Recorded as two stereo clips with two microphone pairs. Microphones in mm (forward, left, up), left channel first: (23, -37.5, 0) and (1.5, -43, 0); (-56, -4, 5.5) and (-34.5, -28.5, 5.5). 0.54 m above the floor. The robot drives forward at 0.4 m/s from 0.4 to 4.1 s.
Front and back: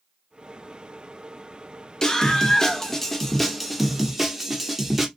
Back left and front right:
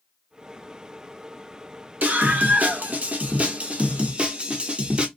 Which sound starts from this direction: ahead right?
A scream, at 2.0 s.